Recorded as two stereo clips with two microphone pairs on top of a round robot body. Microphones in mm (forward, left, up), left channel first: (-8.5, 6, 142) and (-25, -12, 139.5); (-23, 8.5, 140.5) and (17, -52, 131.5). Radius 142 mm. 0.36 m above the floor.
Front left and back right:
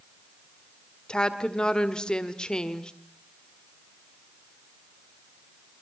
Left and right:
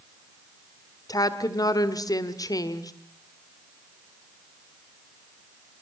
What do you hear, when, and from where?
1.1 s a woman speaking: 105° left, 1.8 m